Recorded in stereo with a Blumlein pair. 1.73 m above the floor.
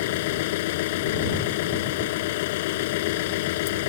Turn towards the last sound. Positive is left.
turn(degrees=50)